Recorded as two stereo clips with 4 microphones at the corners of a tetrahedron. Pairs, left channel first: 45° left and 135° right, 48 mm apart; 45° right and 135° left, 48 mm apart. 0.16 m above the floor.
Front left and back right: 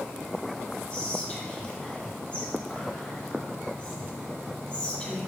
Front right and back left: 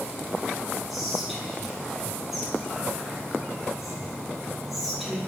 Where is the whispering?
50° left, 1.0 m.